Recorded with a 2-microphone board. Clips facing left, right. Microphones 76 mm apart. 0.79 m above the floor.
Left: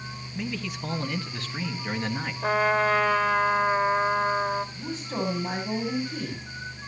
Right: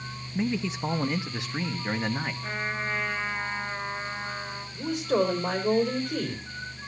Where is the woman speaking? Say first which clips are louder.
Right 6 dB; 75° right (ahead or behind), 4 m.